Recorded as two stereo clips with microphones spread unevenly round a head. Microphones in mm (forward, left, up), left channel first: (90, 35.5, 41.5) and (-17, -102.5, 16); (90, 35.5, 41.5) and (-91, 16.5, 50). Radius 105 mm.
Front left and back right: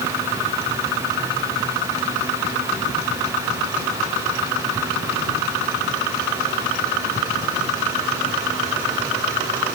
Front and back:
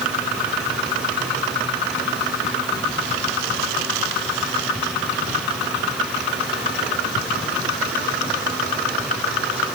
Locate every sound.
Only background noise.